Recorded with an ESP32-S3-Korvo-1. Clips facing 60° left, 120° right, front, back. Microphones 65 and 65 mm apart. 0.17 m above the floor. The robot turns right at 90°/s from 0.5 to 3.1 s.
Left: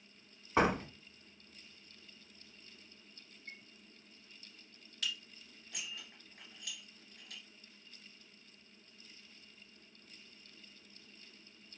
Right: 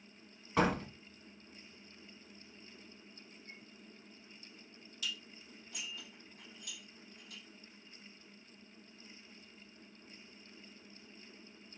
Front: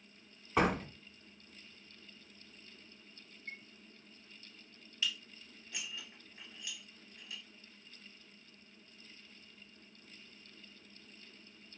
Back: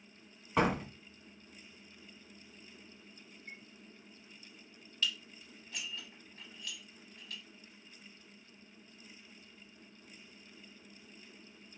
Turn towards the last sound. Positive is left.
turn(degrees=75)